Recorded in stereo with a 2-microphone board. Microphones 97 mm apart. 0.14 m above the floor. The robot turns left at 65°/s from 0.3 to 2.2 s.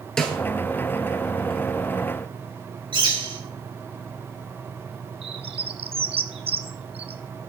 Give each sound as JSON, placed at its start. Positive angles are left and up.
{"t": 0.2, "sound": "a snare drum", "side_deg": 5, "distance_m": 1.8}
{"t": 2.9, "sound": "a bird", "side_deg": -55, "distance_m": 3.0}
{"t": 5.2, "sound": "a bird", "side_deg": -80, "distance_m": 0.9}